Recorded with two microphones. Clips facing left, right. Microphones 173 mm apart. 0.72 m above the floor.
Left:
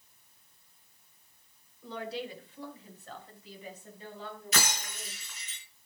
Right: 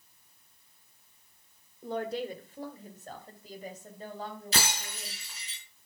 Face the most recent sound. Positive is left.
turn(degrees=-30)  # may be behind; listen again after turning